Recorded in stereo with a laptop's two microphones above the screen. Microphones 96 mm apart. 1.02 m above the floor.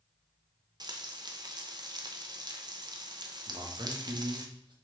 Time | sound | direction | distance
0.8 | frying | 45° right (ahead or behind) | 0.5 m
3.5 | a man speaking | 50° right (ahead or behind) | 1.0 m